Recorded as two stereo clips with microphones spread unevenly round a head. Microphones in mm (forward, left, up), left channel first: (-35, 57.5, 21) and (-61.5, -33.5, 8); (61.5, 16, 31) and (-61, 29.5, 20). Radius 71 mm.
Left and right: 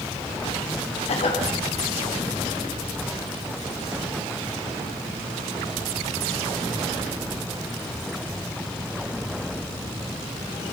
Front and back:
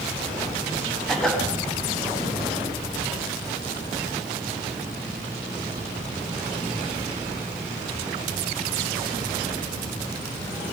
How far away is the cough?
About 6.5 m.